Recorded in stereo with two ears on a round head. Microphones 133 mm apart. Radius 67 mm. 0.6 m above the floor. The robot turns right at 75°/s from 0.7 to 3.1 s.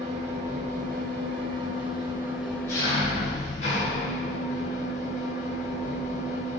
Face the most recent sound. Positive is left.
turn(degrees=50)